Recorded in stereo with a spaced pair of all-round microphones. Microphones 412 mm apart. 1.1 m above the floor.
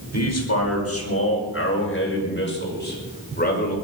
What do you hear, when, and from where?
0.1 s a man speaking: 40° left (ahead or behind), 5 m; by 3.8 s 20° left (ahead or behind), 5.5 m